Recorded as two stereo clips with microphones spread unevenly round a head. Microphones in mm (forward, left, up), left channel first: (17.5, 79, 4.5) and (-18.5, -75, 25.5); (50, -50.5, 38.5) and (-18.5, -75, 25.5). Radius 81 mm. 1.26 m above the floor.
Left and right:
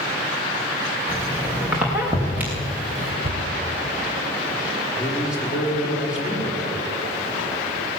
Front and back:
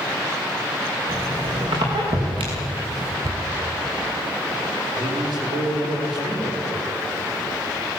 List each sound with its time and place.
1.1 s a squeak: straight behind, 5 m
3.2 s a cupboard door: 120° right, 1.5 m
4.9 s a man speaking: 170° left, 5 m